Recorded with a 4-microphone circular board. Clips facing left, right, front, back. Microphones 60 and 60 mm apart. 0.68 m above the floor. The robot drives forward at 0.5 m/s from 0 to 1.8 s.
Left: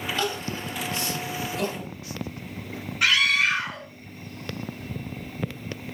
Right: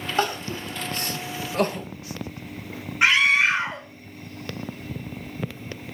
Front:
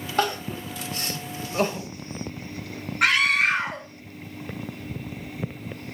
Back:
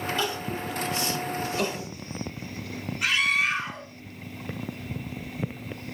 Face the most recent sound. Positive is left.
turn(degrees=-30)